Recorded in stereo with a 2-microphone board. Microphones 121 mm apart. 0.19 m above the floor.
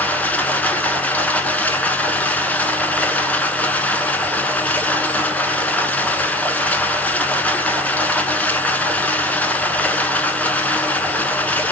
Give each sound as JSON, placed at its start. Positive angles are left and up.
{"t": 0.0, "sound": "running water", "side_deg": 10, "distance_m": 0.8}